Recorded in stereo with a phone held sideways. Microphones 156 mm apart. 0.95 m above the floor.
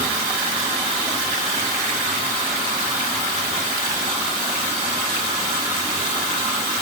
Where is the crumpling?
No crumpling in this recording.